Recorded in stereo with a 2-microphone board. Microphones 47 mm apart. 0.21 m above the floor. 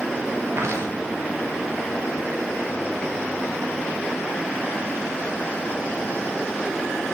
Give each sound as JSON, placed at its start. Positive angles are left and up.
{"t": 0.6, "sound": "footsteps", "side_deg": -90, "distance_m": 4.5}